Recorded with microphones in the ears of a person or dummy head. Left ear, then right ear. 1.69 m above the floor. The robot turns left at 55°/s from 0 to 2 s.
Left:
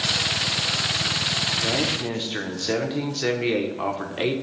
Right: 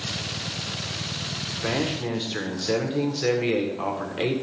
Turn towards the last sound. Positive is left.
turn(degrees=10)  # may be behind; listen again after turning